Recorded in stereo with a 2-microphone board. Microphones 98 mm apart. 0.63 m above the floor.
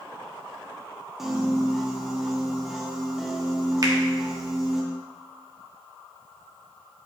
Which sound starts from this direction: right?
A finger snap, at 3.8 s.